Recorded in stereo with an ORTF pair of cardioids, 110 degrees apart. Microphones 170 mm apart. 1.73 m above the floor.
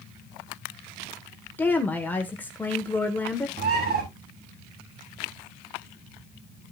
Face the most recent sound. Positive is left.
turn(degrees=-60)